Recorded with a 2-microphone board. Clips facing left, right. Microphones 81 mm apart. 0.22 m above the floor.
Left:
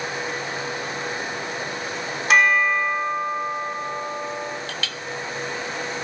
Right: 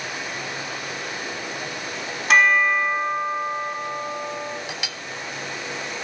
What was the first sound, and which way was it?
A bell, centre (ahead or behind).